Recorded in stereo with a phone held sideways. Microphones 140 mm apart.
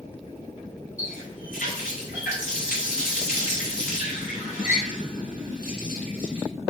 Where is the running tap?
80° left, 1.8 m.